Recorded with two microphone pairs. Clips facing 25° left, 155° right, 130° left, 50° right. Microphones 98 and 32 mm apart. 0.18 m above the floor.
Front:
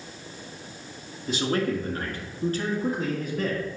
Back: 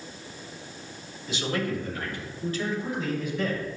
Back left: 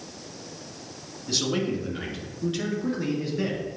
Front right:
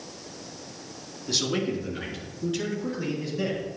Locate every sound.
1.3 s a man speaking: 40° left, 2 m; by 3.6 s 65° left, 4 m